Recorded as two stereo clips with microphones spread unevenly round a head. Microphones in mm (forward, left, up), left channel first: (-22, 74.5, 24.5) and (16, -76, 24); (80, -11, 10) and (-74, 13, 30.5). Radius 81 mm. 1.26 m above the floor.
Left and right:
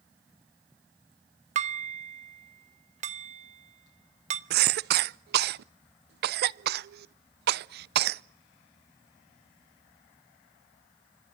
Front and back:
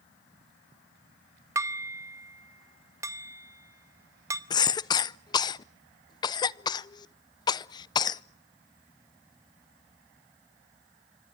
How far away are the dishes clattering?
About 0.9 m.